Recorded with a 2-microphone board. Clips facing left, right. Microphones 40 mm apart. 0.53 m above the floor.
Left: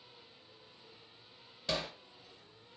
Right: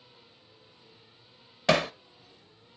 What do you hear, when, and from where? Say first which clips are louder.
1.7 s hammering: right 13 dB; 85° right, 0.6 m